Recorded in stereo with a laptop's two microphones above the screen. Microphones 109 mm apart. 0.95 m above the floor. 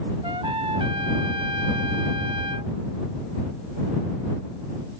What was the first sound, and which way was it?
A trumpet, 55° right (ahead or behind).